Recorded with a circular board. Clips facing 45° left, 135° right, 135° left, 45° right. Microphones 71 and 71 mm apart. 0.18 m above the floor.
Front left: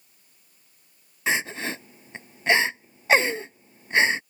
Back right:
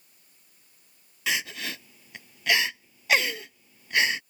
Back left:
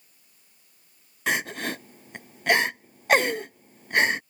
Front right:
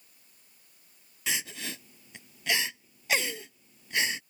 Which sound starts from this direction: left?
Crying, at 1.3 s.